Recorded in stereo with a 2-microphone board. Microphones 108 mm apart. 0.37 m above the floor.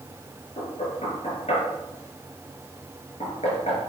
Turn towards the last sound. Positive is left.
turn(degrees=75)  # may be behind; listen again after turning